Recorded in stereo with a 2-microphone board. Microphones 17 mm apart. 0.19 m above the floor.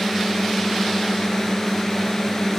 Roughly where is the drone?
Left.